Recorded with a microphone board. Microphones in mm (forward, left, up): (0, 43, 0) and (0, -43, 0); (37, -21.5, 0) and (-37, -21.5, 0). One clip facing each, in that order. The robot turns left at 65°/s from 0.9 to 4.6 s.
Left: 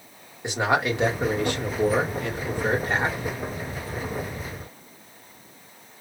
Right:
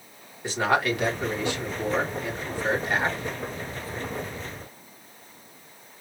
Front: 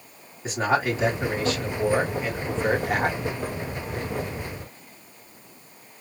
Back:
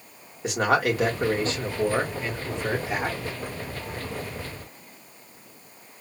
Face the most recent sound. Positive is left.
turn(degrees=-80)